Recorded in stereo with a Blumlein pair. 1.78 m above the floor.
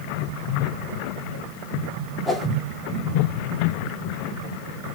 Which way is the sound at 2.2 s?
5° right.